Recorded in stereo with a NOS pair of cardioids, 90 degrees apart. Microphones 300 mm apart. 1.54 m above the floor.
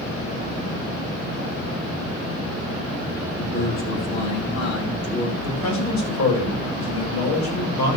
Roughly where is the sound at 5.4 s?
Left.